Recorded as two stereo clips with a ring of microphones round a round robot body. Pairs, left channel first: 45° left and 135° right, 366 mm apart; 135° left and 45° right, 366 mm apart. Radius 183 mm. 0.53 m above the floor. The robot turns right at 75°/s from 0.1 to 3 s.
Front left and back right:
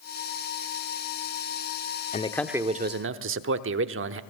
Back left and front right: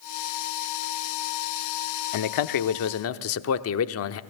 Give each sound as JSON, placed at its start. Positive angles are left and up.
{"t": 2.1, "sound": "a man speaking", "azimuth_deg": 110, "distance_m": 0.9}